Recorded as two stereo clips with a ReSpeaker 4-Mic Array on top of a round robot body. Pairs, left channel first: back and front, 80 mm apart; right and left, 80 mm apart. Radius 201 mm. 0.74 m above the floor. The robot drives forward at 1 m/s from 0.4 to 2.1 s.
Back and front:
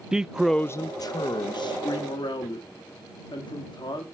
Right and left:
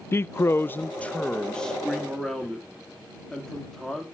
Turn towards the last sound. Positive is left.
turn(degrees=-175)